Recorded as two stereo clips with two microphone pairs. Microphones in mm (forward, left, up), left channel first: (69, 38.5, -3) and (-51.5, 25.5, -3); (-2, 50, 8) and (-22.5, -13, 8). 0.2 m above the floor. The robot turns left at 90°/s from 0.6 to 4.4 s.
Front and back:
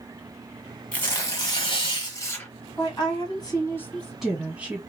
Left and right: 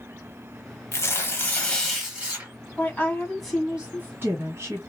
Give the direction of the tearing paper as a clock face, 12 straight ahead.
9 o'clock.